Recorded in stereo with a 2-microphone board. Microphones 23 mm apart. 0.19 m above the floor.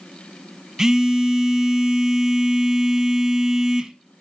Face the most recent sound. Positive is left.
turn(degrees=-20)  # may be behind; listen again after turning